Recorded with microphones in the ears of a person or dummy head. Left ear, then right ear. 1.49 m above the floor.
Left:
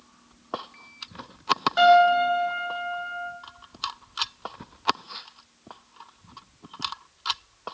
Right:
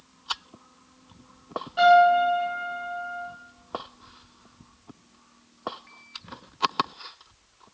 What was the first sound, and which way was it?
A piano, 60° left (ahead or behind).